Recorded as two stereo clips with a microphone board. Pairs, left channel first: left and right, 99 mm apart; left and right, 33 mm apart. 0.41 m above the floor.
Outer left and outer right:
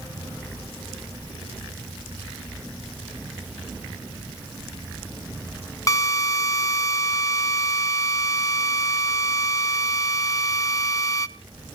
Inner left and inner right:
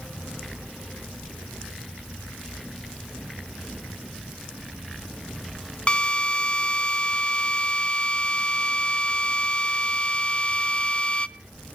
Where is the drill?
35° left (ahead or behind), 0.8 m.